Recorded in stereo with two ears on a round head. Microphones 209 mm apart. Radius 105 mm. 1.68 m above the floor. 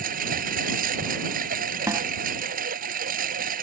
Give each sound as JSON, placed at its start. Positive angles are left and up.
{"t": 0.0, "sound": "a lawn mower", "side_deg": -35}
{"t": 1.9, "sound": "a snare drum", "side_deg": -15}